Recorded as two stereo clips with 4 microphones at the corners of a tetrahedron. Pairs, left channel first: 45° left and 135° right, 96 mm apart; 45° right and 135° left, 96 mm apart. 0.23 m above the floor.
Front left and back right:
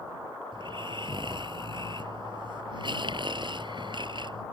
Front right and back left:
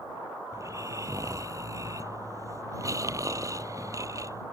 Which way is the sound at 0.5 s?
170° right.